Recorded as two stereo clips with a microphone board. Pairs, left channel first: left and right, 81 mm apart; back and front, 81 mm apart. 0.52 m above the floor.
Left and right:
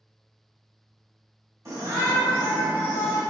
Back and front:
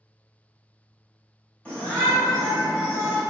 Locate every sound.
1.6 s a shout: 115° right, 1.3 m; by 3.2 s 35° right, 1.1 m